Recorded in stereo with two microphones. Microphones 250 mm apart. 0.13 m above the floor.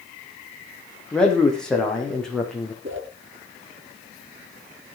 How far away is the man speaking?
About 7.5 m.